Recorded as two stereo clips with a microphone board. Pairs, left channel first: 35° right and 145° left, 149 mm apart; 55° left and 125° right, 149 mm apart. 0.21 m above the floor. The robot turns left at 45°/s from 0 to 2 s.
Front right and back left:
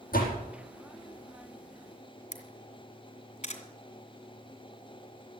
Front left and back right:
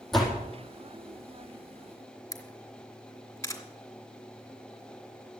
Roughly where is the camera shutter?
Ahead.